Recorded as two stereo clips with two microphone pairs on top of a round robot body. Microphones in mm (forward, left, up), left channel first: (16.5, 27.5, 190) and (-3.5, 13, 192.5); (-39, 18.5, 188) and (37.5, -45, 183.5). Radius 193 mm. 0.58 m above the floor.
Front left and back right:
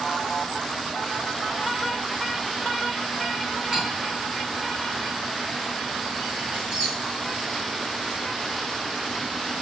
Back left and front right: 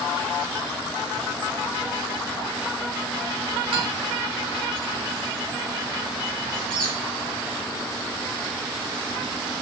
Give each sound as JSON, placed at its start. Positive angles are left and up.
{"t": 3.7, "sound": "cutlery clinking", "azimuth_deg": -65, "distance_m": 5.0}
{"t": 6.5, "sound": "a squeak", "azimuth_deg": -70, "distance_m": 7.5}